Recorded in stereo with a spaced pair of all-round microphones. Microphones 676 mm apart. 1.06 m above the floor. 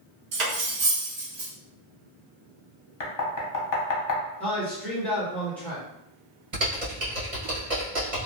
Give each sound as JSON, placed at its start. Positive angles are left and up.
{"t": 0.3, "sound": "cutlery clinking", "side_deg": -75, "distance_m": 0.8}
{"t": 3.0, "sound": "knocking", "side_deg": 30, "distance_m": 0.6}
{"t": 4.4, "sound": "a man speaking", "side_deg": 0, "distance_m": 1.0}
{"t": 6.5, "sound": "typing on a keyboard", "side_deg": -55, "distance_m": 1.2}